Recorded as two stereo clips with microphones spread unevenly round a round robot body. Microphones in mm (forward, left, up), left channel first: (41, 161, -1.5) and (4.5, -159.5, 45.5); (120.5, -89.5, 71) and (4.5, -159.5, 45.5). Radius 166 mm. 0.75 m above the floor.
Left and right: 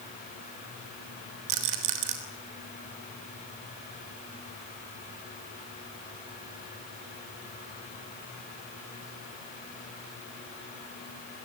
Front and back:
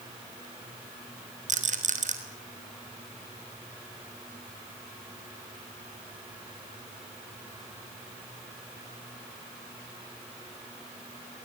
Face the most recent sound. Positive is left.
turn(degrees=-130)